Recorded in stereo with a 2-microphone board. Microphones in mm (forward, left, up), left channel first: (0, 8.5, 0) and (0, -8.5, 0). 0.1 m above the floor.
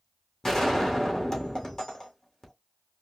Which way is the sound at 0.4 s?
35° left (ahead or behind).